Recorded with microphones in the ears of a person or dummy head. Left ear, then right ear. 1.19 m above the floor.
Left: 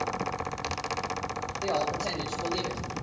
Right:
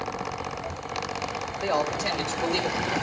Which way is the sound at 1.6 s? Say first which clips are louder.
Right 3 dB; 35° right (ahead or behind).